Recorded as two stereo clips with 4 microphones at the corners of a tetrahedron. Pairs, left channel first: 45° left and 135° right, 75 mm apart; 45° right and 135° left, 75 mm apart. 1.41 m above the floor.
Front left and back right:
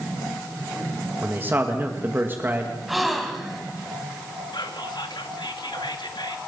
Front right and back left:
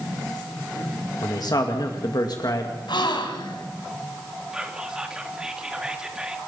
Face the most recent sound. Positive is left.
turn(degrees=55)